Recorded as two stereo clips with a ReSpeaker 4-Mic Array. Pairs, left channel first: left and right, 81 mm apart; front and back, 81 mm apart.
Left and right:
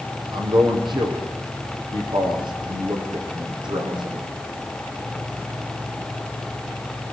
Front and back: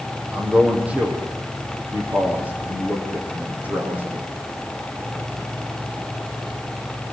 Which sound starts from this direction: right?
A man speaking, at 0.3 s.